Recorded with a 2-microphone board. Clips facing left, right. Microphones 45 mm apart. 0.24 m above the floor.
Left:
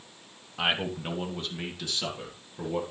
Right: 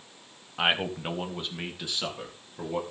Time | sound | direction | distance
0.6 | a man speaking | 20° right (ahead or behind) | 1.1 m